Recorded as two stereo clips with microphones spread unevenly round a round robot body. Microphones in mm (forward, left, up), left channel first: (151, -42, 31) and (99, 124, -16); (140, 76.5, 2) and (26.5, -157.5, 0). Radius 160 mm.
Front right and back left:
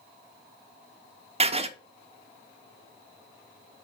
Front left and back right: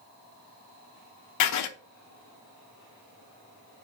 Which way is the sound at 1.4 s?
55° left.